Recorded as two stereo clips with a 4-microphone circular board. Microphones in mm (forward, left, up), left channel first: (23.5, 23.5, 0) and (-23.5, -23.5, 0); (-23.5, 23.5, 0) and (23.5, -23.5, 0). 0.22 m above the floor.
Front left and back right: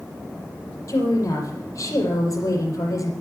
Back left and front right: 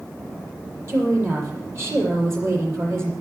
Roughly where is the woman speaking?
Ahead.